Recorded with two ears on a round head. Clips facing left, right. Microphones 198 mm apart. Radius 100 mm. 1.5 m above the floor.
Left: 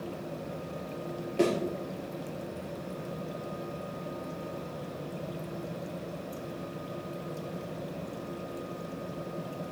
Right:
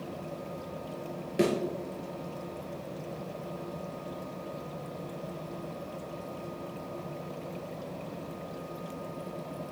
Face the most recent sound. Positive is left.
turn(degrees=-20)  # may be behind; listen again after turning